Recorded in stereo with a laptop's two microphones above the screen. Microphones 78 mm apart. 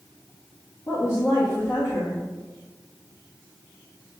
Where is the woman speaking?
30° left (ahead or behind), 0.9 m.